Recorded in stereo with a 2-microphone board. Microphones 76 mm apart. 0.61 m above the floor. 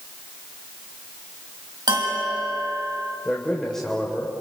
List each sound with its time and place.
1.9 s a bell: 75° right (ahead or behind), 4 m
3.2 s a man speaking: 10° left (ahead or behind), 2.5 m